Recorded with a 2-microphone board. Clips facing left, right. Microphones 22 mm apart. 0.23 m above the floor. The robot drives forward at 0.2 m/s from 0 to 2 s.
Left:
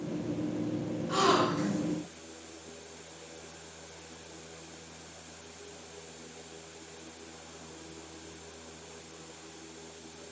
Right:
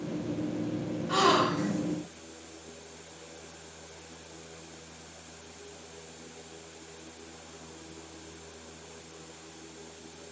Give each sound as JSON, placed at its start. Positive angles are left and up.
{"t": 1.1, "sound": "a gasp", "side_deg": -40, "distance_m": 1.1}